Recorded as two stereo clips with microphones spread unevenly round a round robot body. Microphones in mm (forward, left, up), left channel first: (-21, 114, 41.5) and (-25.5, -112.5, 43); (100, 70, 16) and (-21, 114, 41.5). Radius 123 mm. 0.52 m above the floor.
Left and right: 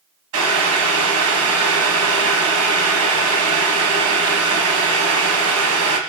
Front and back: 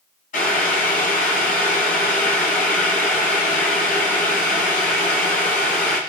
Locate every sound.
0.3 s boiling: 60° right, 1.7 m